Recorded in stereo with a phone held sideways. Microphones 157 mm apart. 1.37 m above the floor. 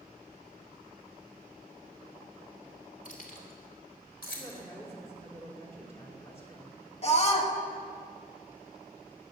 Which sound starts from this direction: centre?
A woman speaking, at 4.4 s.